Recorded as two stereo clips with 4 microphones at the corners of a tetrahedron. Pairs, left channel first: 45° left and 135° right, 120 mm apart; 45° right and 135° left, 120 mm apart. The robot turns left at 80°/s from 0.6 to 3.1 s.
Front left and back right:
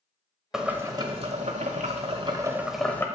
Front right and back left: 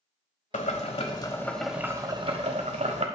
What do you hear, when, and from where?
0.5 s boiling: 50° right, 1.2 m; by 3.1 s 115° left, 1.2 m